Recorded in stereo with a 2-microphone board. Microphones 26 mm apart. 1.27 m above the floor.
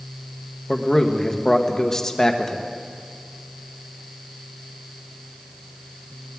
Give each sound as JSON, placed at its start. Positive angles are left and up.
{"t": 0.7, "sound": "a man speaking", "side_deg": 20, "distance_m": 1.1}